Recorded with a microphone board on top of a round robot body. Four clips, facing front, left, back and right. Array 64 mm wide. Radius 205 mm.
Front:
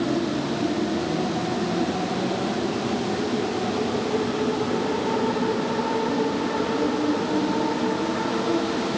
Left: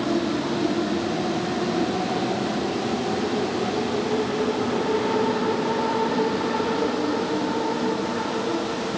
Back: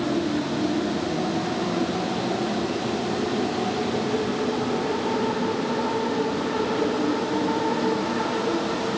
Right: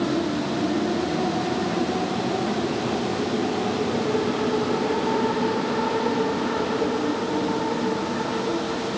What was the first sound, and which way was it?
Only background noise.